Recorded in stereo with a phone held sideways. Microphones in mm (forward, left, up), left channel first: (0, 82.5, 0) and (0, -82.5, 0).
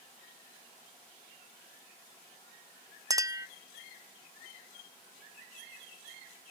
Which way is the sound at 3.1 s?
20° right (ahead or behind).